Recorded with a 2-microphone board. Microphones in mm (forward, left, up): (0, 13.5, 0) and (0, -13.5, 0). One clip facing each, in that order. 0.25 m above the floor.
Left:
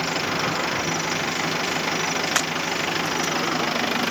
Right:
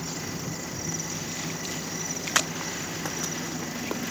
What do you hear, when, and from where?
0.0 s an engine running: 65° left (ahead or behind)